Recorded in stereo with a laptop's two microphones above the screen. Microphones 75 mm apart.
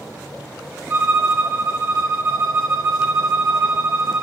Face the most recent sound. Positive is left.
turn(degrees=-35)  # may be behind; listen again after turning